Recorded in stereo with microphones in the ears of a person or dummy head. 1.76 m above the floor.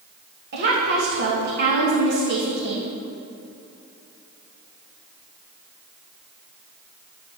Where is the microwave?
I don't hear a microwave.